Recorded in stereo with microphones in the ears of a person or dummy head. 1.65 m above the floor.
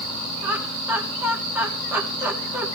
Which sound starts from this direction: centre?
Laughter, at 0.4 s.